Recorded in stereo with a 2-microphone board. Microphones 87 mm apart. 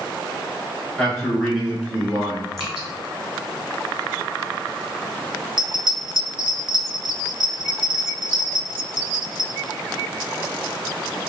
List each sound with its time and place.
1.0 s a man speaking: 15° left (ahead or behind), 1.5 m; by 2.5 s 30° right (ahead or behind), 1.4 m
2.6 s dripping: centre (ahead or behind), 1.7 m
5.6 s a bell: 60° right (ahead or behind), 0.9 m